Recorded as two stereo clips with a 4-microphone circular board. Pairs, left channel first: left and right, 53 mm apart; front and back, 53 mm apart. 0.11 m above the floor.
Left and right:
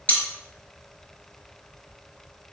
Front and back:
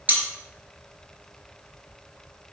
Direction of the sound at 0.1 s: 135° left.